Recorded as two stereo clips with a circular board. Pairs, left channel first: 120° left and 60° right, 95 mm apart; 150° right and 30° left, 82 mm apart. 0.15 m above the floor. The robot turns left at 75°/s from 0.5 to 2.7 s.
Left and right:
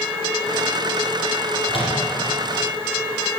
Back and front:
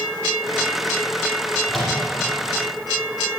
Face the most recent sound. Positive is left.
turn(degrees=50)